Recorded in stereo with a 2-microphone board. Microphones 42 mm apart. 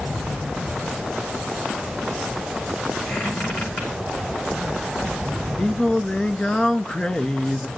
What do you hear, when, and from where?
3.1 s a squeak: 55° left (ahead or behind), 5 m
5.6 s singing: 25° left (ahead or behind), 0.5 m